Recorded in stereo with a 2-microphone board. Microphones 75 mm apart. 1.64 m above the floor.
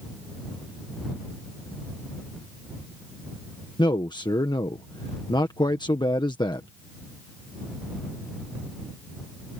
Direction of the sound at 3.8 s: 85° left.